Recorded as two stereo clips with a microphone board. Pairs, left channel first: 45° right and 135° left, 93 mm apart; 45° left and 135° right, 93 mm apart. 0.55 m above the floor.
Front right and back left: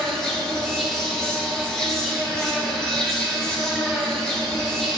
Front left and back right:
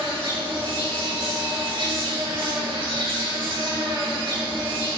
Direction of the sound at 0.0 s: 125° right.